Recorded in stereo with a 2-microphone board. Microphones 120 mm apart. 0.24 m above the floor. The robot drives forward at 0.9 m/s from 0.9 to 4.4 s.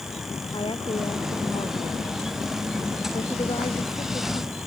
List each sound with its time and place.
0.5 s a woman speaking: 45° left (ahead or behind); by 4.6 s 55° left (ahead or behind)